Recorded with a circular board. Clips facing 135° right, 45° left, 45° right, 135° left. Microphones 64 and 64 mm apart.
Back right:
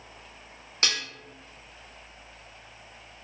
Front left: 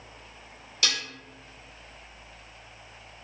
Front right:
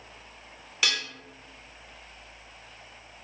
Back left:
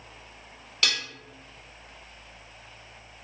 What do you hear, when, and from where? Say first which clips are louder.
0.8 s dishes clattering: back right 1 dB, even; 125° right, 1.3 m